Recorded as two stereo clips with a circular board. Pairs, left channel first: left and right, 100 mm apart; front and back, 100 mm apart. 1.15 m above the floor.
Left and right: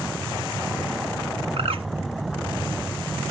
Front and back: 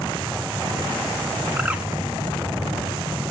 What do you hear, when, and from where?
1.6 s a bird: 105° right, 1.2 m